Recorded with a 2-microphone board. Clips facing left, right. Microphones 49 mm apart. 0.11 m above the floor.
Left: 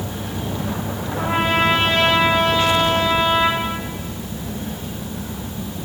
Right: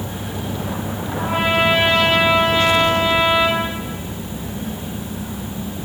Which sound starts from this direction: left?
A trumpet, at 1.2 s.